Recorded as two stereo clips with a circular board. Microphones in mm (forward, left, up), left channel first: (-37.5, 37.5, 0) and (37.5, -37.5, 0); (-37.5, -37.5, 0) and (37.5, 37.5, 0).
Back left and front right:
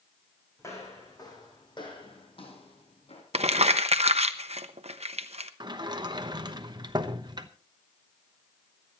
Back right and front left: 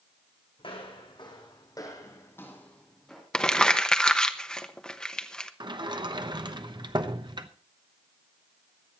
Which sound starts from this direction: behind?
Footsteps, at 0.6 s.